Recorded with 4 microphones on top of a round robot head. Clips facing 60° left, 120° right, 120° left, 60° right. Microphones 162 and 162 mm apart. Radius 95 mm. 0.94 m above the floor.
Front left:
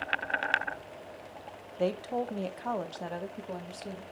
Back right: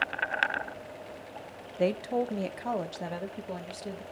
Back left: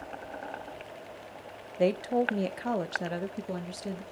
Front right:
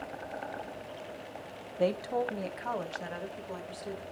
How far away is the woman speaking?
About 0.8 m.